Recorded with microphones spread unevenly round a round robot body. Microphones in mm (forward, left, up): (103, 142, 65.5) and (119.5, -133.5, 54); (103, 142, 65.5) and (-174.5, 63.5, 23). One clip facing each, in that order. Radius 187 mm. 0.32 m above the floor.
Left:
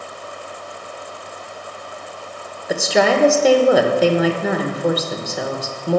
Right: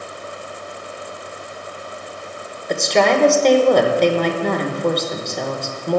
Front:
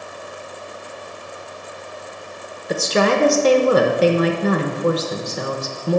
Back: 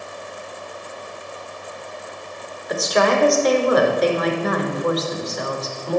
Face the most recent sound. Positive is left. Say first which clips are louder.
# even, front 1 dB
turn(degrees=10)